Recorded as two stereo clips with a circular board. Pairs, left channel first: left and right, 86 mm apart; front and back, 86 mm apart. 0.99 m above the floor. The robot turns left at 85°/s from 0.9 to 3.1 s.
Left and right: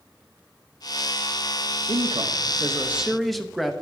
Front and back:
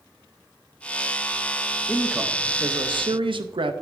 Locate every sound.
1.9 s a man speaking: 75° right, 0.7 m; by 3.7 s straight behind, 0.7 m